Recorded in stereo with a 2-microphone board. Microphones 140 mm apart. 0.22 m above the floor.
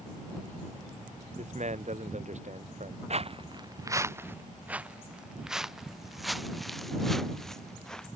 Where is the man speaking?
60° right (ahead or behind).